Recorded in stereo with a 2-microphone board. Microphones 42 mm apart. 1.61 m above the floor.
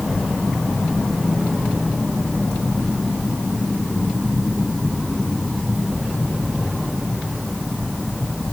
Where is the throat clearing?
I don't hear throat clearing.